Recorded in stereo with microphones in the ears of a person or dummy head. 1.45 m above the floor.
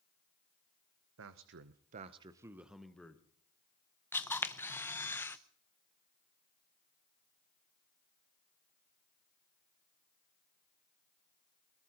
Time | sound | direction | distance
1.2 | a man speaking | 75° right (ahead or behind) | 0.8 m
4.1 | a camera shutter | 15° left (ahead or behind) | 0.7 m